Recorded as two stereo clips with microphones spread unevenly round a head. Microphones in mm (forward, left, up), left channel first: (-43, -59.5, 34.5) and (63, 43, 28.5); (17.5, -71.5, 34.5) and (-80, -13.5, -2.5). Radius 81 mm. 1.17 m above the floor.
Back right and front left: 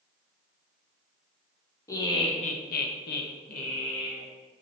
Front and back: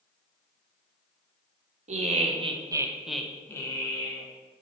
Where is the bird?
No bird in this recording.